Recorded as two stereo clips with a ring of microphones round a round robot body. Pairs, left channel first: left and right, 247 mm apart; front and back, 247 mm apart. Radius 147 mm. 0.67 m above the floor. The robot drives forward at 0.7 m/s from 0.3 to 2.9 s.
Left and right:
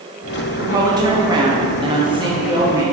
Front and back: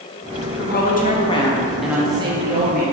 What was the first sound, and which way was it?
A woman speaking, 20° right.